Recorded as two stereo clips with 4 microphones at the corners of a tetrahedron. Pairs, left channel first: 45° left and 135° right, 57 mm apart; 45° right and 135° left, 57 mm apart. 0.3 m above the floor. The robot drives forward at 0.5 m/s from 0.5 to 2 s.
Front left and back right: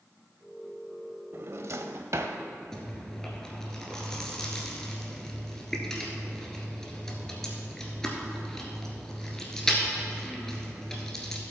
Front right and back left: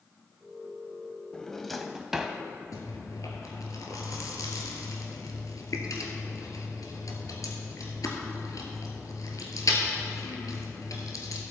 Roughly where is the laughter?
I don't hear laughter.